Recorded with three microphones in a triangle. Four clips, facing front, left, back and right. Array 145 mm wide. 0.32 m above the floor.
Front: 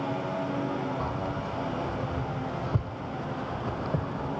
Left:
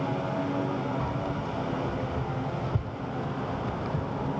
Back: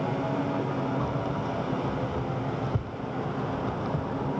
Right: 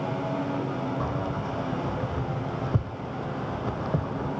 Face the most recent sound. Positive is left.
turn(degrees=-75)